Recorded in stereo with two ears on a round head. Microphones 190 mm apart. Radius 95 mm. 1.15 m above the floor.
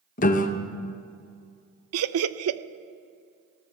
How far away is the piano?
About 0.7 m.